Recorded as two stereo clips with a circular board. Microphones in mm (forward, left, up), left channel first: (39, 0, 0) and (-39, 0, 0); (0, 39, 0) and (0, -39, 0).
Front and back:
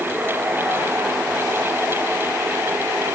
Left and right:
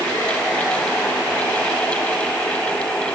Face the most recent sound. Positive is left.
No sound to turn to.